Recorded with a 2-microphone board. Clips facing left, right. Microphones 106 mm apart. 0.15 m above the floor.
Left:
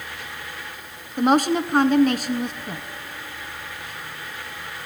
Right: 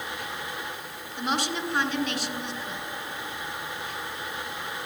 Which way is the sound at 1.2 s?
45° left (ahead or behind).